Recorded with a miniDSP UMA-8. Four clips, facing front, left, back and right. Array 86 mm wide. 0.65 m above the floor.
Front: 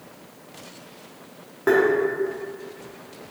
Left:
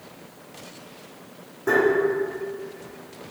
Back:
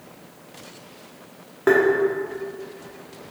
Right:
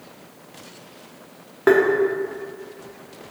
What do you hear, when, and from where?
1.7 s tapping: 105° right, 1.1 m